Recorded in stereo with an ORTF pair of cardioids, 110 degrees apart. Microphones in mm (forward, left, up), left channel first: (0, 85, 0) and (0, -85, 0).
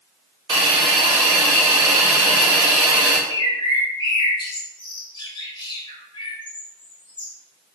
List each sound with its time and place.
0.5 s a hiss: 25° right, 0.9 m
3.3 s a bird: 30° left, 0.7 m